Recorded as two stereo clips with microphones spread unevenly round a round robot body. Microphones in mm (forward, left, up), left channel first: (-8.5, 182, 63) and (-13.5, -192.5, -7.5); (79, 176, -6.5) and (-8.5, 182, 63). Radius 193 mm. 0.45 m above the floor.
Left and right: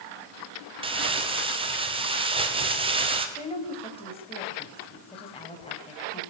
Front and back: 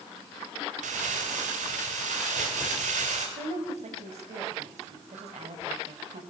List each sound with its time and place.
0.8 s crumpling: 160° right, 2.5 m
3.4 s a woman speaking: 170° left, 3.5 m